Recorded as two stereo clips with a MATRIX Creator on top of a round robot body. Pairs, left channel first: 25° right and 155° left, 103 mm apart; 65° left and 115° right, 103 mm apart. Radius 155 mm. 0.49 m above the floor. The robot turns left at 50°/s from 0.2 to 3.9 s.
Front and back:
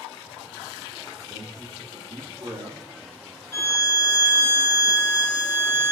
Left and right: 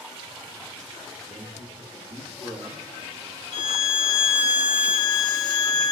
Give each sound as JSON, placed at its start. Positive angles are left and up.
{"t": 1.2, "sound": "a man speaking", "azimuth_deg": -110, "distance_m": 1.5}
{"t": 3.5, "sound": "a violin", "azimuth_deg": 45, "distance_m": 0.5}